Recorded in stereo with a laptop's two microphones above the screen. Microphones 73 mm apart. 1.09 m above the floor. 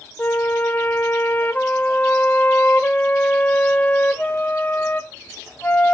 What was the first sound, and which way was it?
A flute, 20° left (ahead or behind).